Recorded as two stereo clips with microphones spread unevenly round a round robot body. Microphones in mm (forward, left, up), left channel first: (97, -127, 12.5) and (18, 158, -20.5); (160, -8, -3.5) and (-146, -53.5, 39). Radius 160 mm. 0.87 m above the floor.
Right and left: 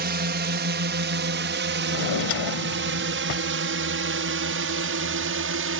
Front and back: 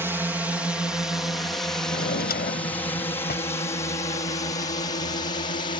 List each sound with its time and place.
0.0 s a drone: 100° left; by 5.8 s 75° left
1.9 s a drawer: 55° right